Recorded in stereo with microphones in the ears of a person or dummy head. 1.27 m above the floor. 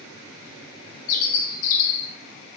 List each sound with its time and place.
1.1 s a bird: 50° left (ahead or behind), 0.5 m